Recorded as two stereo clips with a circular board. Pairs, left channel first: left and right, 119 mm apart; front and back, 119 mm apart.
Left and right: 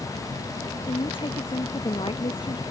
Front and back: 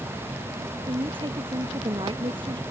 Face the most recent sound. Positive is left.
turn(degrees=135)